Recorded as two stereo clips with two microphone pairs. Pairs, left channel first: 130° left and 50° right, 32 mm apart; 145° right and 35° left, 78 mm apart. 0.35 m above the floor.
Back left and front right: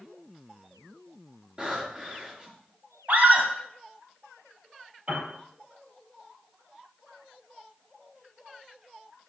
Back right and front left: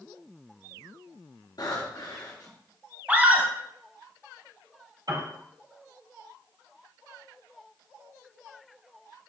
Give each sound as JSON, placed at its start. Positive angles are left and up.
{"t": 1.6, "sound": "breathing", "azimuth_deg": -110, "distance_m": 4.5}
{"t": 3.1, "sound": "a scream", "azimuth_deg": -30, "distance_m": 2.0}
{"t": 5.1, "sound": "a piano", "azimuth_deg": 5, "distance_m": 4.5}